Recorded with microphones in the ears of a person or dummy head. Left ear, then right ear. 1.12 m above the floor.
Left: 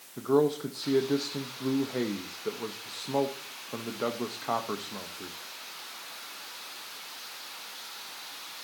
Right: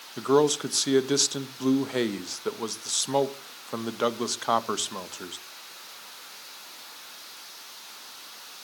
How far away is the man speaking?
About 0.8 m.